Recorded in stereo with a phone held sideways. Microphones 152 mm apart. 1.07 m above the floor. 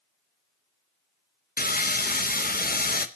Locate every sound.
1.6 s sawing: 80° left, 0.7 m